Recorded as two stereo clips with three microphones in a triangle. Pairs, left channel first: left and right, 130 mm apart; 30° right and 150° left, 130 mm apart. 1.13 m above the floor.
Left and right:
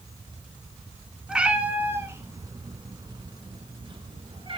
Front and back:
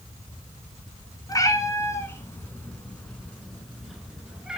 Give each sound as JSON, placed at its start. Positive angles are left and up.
{"t": 1.3, "sound": "a cat meowing", "azimuth_deg": -10, "distance_m": 1.1}